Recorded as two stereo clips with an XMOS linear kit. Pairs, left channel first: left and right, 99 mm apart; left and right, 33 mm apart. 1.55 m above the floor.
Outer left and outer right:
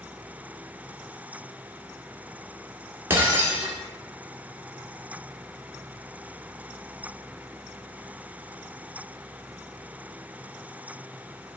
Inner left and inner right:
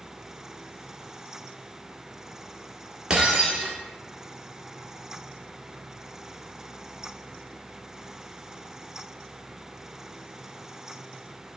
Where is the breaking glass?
25° right (ahead or behind), 1.7 m.